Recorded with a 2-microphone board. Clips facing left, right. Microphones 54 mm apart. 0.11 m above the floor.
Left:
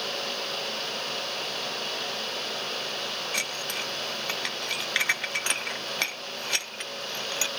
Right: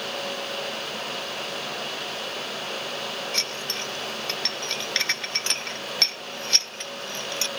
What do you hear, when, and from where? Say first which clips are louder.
3.3 s dishes clattering: right 1 dB; 10° left (ahead or behind)